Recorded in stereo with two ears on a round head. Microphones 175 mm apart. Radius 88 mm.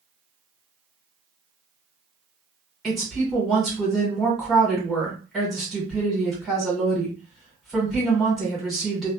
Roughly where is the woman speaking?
Centre.